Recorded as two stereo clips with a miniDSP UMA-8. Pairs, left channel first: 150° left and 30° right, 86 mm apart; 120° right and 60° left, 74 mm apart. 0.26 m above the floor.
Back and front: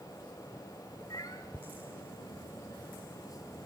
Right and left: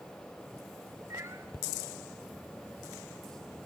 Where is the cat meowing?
110° left, 2.5 m.